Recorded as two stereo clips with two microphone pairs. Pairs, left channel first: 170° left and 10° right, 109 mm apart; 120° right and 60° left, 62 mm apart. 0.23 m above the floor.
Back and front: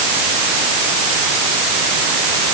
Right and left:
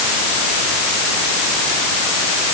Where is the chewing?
No chewing in this recording.